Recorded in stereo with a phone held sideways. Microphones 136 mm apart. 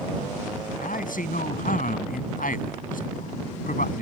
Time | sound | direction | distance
0.8 | a man speaking | 85° left | ?